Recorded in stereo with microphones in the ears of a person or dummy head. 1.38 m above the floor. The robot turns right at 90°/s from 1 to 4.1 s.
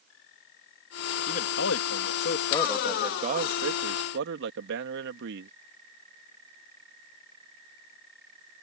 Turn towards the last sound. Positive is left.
turn(degrees=-65)